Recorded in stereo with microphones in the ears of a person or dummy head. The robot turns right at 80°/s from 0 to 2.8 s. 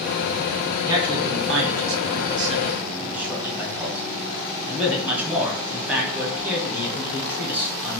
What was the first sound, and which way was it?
A man speaking, 165° right.